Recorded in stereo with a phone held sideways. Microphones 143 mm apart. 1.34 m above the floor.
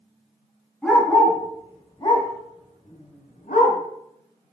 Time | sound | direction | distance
0.8 | a dog barking | 5° left (ahead or behind) | 3.5 m